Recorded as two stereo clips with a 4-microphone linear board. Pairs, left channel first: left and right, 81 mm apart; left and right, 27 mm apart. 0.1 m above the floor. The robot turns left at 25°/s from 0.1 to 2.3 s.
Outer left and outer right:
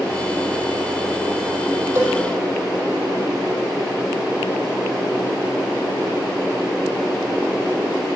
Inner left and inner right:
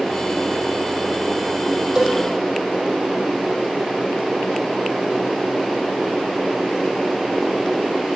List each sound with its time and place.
1.9 s a cowbell: 35° right (ahead or behind), 4 m; by 2.2 s 30° right (ahead or behind), 4 m